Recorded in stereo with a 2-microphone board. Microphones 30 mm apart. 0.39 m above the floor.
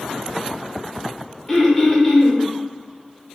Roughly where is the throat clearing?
Centre.